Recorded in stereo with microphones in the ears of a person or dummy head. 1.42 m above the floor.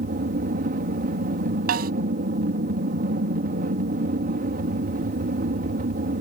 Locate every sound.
0.0 s an aircraft: 45° right (ahead or behind)
1.7 s a snare drum: 55° right (ahead or behind)